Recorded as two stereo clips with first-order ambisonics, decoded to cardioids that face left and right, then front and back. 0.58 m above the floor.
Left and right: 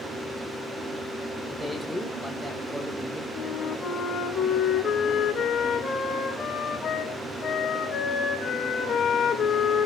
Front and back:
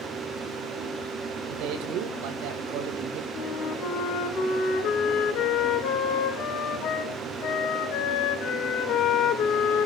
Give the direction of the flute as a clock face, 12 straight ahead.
11 o'clock.